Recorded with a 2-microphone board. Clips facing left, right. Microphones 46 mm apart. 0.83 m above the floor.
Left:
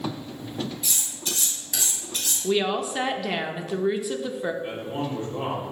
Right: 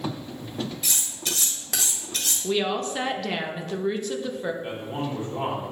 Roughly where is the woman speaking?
Centre.